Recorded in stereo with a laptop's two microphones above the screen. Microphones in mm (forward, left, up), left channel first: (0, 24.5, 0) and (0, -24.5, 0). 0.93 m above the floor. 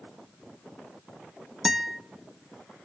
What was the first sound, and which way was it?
A guitar, 5° right (ahead or behind).